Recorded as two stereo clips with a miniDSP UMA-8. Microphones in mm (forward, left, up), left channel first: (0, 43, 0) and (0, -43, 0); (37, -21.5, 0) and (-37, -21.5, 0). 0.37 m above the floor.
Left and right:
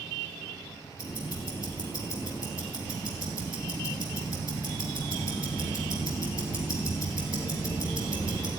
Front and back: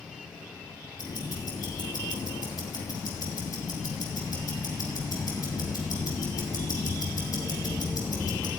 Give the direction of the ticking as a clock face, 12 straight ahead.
11 o'clock.